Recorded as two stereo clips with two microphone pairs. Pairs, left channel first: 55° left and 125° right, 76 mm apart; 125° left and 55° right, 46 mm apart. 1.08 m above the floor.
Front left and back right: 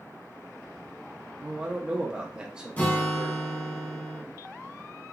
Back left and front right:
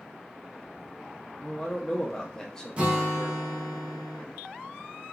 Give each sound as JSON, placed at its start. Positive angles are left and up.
{"t": 1.4, "sound": "a man speaking", "azimuth_deg": -170, "distance_m": 0.6}
{"t": 2.8, "sound": "a guitar", "azimuth_deg": -5, "distance_m": 0.7}